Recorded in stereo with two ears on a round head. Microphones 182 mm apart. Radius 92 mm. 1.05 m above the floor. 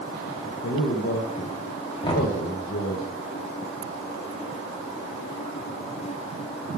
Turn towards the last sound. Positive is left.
turn(degrees=25)  # may be behind; listen again after turning